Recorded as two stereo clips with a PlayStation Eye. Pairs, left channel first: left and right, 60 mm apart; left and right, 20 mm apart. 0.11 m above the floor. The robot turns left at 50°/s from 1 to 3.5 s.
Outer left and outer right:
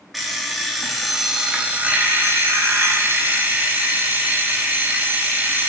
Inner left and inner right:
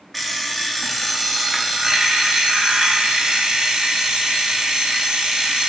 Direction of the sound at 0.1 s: Straight ahead.